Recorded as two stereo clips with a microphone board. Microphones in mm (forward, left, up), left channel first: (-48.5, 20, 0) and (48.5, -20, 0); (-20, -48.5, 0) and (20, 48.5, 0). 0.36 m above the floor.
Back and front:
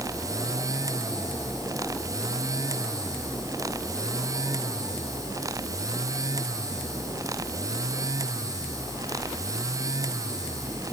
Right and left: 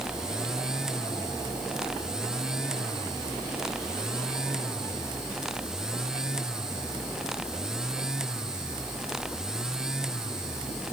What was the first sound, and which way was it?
Only background noise.